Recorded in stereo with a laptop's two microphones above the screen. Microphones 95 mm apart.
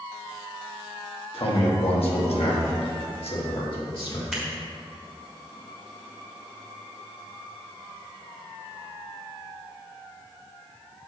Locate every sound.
1.3 s a man speaking: 65° left (ahead or behind), 1.5 m; by 4.2 s 60° left (ahead or behind), 2 m
4.3 s scissors: 5° right (ahead or behind), 1.4 m